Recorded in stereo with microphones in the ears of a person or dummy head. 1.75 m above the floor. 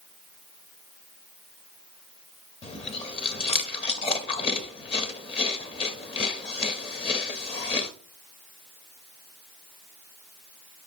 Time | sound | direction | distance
2.6 | chewing | 35° left (ahead or behind) | 0.7 m